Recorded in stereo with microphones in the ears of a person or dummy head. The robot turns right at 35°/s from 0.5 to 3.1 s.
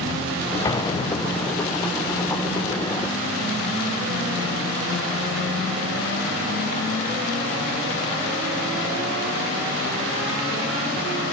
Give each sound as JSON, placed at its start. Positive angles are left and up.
{"t": 0.7, "sound": "an explosion", "azimuth_deg": 20, "distance_m": 1.0}